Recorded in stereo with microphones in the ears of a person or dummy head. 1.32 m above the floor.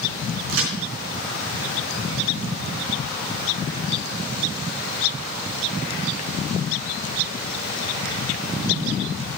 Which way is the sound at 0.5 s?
70° right (ahead or behind).